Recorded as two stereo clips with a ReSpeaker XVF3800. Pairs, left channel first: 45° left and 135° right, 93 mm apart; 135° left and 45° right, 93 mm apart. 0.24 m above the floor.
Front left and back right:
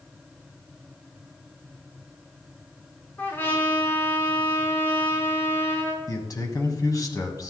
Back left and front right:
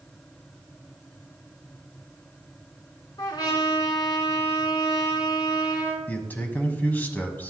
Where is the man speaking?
70° left, 1.5 m.